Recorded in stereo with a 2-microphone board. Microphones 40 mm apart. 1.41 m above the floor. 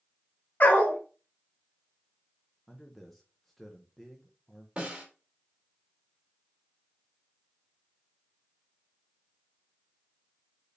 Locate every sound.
0.6 s a dog barking: 40° left (ahead or behind), 1.3 m
2.7 s a man speaking: 5° left (ahead or behind), 0.7 m
4.8 s a snare drum: 25° right (ahead or behind), 2 m